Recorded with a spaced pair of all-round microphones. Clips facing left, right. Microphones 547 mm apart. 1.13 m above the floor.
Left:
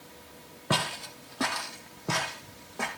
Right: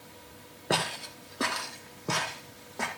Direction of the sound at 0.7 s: 25° left (ahead or behind).